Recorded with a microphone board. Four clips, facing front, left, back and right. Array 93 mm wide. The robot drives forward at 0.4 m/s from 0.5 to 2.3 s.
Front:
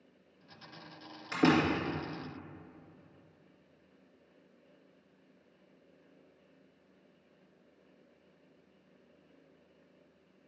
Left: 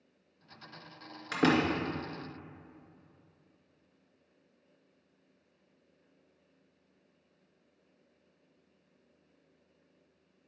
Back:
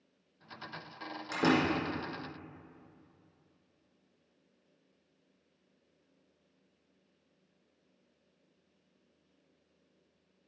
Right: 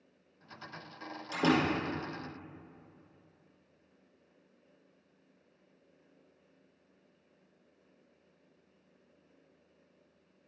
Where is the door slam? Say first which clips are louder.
Left 1 dB, front 2 dB; 100° left, 2.5 m.